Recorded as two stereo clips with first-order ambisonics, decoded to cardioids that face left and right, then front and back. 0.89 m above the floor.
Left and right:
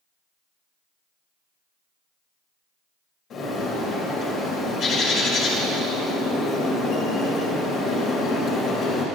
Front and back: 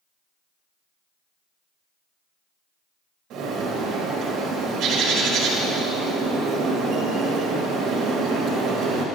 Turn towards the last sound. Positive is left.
turn(degrees=140)